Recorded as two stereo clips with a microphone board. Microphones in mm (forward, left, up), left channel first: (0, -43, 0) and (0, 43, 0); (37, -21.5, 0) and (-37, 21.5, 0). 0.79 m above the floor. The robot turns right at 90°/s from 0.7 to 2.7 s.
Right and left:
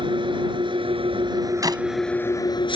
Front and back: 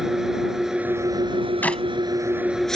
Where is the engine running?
65° left; by 2.8 s 115° right.